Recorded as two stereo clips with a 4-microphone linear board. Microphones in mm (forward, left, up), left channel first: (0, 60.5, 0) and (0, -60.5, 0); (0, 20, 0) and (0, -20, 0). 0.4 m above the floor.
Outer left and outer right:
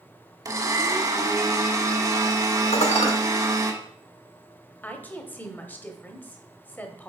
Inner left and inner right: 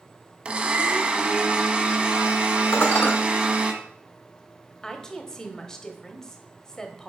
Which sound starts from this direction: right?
A blender, at 0.5 s.